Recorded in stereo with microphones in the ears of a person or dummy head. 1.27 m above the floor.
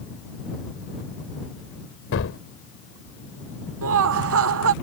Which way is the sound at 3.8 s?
65° right (ahead or behind).